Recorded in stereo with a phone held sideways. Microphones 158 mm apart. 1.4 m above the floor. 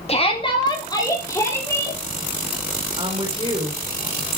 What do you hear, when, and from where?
0.1 s a shout: 40° left (ahead or behind), 2.5 m; by 2.0 s 15° left (ahead or behind), 4.5 m
3.0 s a woman speaking: 35° right (ahead or behind), 4.5 m